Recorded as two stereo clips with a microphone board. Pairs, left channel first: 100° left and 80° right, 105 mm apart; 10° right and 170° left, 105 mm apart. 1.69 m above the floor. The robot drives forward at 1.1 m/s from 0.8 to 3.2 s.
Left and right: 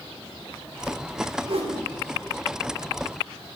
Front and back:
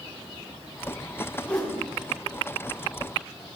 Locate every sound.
1.4 s a whoosh: 85° right, 3 m; by 1.8 s 95° right, 3 m